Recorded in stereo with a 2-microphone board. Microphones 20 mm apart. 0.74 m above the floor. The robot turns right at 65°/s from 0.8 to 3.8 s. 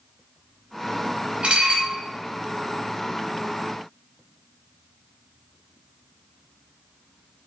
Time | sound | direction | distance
1.4 | dishes clattering | 70° right (ahead or behind) | 0.6 m